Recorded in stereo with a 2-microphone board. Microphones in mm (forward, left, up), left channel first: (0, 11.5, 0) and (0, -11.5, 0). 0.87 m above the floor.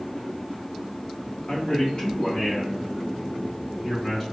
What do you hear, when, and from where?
1.5 s a man speaking: 50° left (ahead or behind), 1.4 m; by 4.2 s 10° left (ahead or behind), 2 m